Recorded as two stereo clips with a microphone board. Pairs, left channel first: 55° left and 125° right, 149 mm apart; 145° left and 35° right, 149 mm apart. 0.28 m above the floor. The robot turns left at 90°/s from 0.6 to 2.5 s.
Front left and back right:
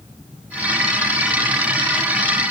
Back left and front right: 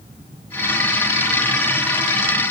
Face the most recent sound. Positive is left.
No sound to turn to.